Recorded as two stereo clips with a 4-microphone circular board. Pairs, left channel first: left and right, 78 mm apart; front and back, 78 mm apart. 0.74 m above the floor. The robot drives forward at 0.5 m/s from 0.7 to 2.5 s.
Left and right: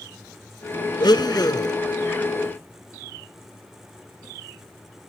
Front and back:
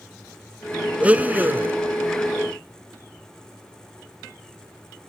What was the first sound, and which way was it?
A blender, 105° left.